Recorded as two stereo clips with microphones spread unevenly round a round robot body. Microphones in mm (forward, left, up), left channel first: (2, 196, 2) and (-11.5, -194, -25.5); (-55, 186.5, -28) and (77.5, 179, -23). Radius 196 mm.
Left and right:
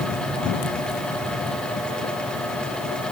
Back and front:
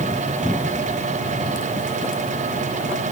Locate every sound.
Only background noise.